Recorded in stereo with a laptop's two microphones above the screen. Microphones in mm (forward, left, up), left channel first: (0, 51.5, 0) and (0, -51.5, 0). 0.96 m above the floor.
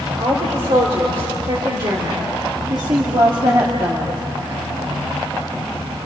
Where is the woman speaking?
55° right (ahead or behind), 3.5 m; by 4.2 s 40° right (ahead or behind), 1.5 m.